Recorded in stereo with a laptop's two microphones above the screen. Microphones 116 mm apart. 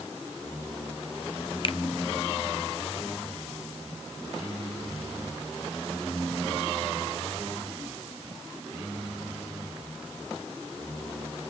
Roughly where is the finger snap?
Left.